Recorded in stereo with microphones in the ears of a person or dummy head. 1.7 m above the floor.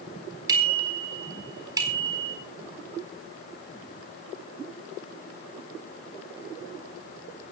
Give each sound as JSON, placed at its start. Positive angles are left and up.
{"t": 0.5, "sound": "a bicycle bell", "side_deg": -20, "distance_m": 4.0}